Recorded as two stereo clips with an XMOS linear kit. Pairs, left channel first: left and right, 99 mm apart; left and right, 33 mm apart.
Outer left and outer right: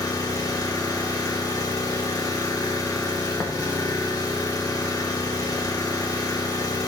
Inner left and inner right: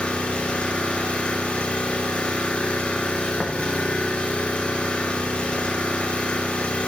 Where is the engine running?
35° left (ahead or behind), 2 m.